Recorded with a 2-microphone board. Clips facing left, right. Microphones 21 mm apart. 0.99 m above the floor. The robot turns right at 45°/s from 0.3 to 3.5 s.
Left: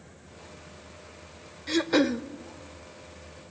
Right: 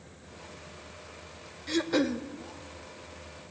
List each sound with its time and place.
1.7 s throat clearing: 15° left (ahead or behind), 0.8 m; by 2.2 s 30° left (ahead or behind), 0.8 m